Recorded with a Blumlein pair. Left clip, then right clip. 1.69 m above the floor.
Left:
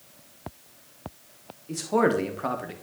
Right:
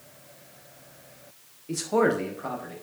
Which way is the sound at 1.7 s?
10° right.